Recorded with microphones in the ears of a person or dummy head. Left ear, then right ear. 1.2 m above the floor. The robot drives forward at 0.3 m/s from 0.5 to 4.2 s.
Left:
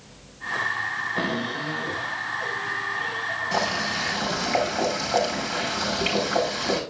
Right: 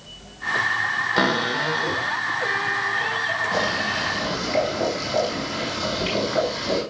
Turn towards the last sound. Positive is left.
turn(degrees=55)  # may be behind; listen again after turning